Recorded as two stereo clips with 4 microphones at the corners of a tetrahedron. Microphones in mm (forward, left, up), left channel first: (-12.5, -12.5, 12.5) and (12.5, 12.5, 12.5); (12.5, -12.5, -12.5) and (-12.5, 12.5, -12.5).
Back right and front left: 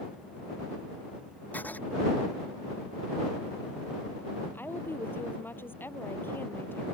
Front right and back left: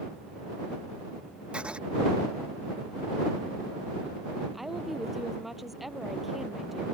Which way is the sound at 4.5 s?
140° right.